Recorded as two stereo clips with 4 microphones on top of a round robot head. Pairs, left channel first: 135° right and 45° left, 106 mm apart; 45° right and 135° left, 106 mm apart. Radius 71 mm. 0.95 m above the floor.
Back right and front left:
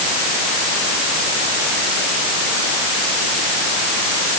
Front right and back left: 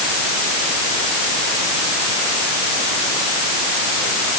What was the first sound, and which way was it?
Only background noise.